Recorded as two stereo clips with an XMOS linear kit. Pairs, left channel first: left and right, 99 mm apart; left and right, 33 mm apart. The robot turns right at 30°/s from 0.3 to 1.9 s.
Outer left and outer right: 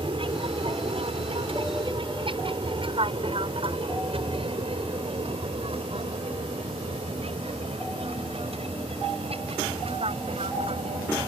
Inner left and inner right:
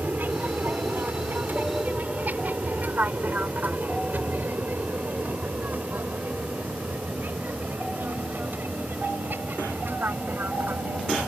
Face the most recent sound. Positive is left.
turn(degrees=-75)  # may be behind; listen again after turning